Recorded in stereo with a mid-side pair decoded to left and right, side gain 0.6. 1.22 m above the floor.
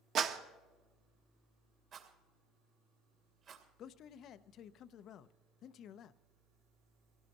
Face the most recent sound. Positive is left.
turn(degrees=55)